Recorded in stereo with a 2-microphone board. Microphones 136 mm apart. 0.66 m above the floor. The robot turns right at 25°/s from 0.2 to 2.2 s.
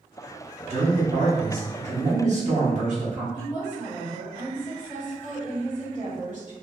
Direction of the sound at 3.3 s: 65° right (ahead or behind).